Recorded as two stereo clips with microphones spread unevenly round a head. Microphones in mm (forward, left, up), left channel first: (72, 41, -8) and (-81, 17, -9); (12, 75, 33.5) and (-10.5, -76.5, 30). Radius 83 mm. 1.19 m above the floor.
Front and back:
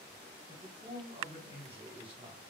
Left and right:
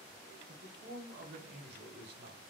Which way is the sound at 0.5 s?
110° right.